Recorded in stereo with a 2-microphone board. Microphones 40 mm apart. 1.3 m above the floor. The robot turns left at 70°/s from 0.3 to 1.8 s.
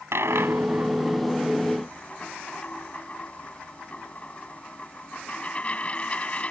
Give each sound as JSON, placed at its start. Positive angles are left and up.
{"t": 0.1, "sound": "a dropped coin", "side_deg": -75}